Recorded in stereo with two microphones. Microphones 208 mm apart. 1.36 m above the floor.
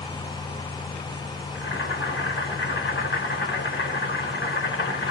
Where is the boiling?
65° left (ahead or behind), 2.5 m.